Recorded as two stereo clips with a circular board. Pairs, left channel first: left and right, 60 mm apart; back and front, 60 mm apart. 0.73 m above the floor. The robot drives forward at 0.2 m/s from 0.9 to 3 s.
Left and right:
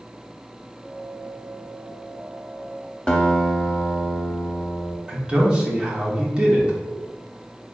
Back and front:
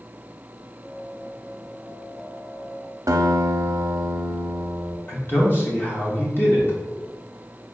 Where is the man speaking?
155° right, 1.0 m.